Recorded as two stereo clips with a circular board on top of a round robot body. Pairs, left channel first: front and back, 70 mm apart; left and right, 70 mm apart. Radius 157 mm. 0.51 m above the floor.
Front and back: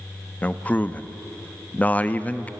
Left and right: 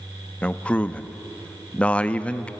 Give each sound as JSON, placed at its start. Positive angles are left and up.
{"t": 0.4, "sound": "a man speaking", "azimuth_deg": 40, "distance_m": 1.2}